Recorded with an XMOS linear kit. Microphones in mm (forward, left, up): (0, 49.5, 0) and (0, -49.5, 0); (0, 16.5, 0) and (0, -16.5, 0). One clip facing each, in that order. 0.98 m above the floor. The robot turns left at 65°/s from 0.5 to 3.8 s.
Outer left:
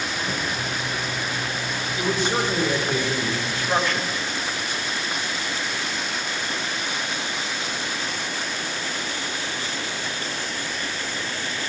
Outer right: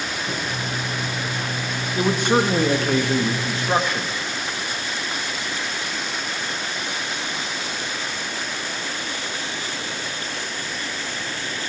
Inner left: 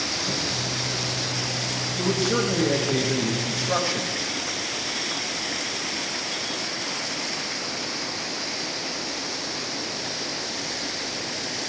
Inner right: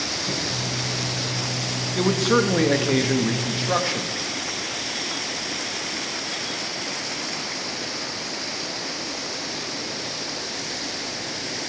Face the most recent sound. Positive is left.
turn(degrees=-165)